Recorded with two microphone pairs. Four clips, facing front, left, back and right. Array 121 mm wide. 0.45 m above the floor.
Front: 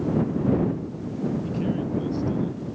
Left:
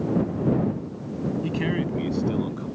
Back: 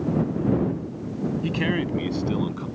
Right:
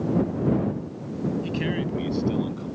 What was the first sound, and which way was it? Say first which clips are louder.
A man speaking: left 1 dB, back 2 dB; 170° left.